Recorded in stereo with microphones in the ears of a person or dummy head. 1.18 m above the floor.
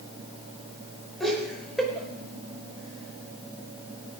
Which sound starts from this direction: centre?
Laughter, at 1.2 s.